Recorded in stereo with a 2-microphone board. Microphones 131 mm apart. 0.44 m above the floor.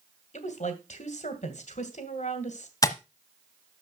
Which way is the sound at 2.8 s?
25° left (ahead or behind).